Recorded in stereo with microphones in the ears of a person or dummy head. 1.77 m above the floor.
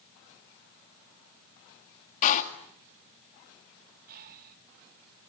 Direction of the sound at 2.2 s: 45° left (ahead or behind).